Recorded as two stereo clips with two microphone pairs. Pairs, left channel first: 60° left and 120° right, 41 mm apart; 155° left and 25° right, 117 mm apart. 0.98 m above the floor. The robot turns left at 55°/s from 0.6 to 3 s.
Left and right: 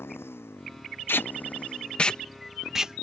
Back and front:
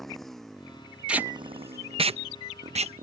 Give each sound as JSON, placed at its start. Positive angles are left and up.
{"t": 0.0, "sound": "a motorcycle", "azimuth_deg": 65}
{"t": 1.1, "sound": "tape being pulled", "azimuth_deg": 55}